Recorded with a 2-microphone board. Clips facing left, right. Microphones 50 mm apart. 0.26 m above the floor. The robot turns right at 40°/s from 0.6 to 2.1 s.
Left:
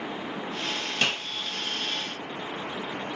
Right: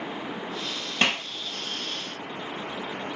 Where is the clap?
30° right (ahead or behind), 2.5 m; by 1.3 s 20° right (ahead or behind), 2.5 m.